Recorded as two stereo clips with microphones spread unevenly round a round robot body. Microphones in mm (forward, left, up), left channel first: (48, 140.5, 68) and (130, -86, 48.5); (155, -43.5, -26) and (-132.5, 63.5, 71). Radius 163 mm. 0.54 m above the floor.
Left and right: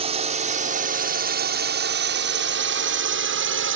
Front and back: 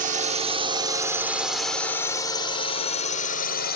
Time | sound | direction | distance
0.0 | a drone | 125° right | ?